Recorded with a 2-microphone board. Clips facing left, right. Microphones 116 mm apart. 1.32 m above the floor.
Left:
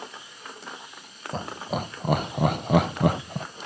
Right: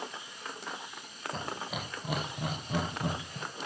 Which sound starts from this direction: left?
Laughter, at 1.3 s.